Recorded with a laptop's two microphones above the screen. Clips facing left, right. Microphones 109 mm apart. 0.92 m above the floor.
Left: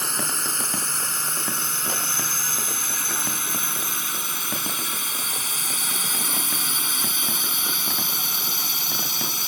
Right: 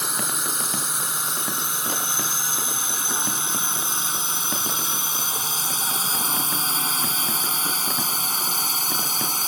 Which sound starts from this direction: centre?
A drone, at 0.0 s.